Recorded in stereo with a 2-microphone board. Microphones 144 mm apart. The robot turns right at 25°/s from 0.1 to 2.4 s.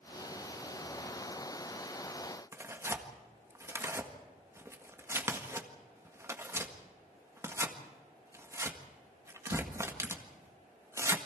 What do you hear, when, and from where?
2.5 s tearing paper: 20° right (ahead or behind), 1.6 m